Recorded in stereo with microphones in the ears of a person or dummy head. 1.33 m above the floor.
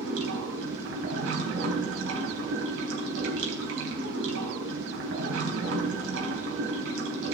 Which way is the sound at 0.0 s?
75° right (ahead or behind).